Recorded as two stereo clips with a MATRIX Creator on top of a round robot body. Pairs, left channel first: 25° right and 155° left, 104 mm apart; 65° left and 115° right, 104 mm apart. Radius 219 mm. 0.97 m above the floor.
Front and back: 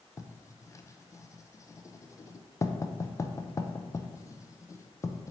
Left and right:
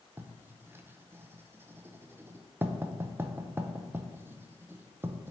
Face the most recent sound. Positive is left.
turn(degrees=-60)